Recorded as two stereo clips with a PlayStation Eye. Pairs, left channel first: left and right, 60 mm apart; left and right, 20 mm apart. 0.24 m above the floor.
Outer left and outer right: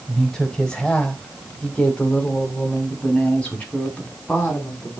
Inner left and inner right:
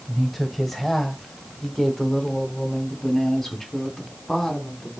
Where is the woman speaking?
5° left (ahead or behind), 1.3 m; by 5.0 s 20° left (ahead or behind), 3 m.